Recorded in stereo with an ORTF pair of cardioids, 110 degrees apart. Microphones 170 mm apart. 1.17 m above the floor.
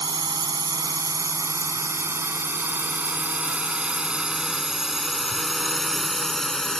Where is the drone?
25° right; by 6.8 s 5° left.